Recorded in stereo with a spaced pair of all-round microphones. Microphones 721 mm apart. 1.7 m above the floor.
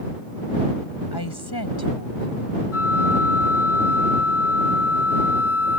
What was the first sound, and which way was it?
A woman speaking, 30° left (ahead or behind).